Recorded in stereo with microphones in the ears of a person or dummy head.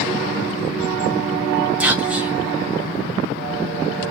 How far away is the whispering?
About 0.8 m.